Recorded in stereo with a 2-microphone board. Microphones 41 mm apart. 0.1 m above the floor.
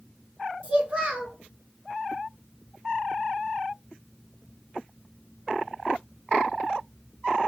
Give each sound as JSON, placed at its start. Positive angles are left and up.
{"t": 0.6, "sound": "a child speaking", "side_deg": -30, "distance_m": 0.8}